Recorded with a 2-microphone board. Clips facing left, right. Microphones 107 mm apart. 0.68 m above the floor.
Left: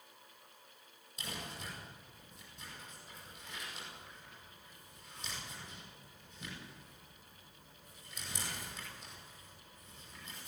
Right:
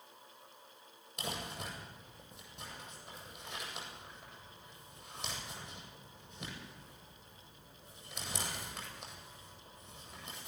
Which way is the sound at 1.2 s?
65° right (ahead or behind).